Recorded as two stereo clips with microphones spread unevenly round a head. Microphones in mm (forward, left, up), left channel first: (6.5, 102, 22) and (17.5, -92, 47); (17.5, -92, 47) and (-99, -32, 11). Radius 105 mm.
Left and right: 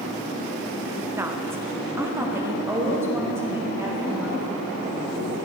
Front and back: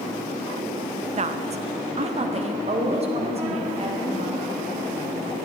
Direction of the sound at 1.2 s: 165° right.